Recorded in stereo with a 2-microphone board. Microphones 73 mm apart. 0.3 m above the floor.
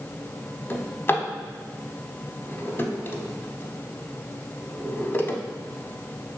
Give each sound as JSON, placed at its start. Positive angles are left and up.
{"t": 0.7, "sound": "a drawer", "side_deg": 35, "distance_m": 0.5}